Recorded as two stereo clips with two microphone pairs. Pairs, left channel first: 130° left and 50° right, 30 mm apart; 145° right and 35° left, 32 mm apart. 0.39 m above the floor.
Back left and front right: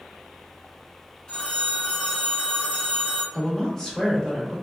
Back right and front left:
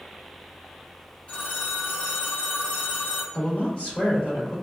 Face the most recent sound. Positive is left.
turn(degrees=-170)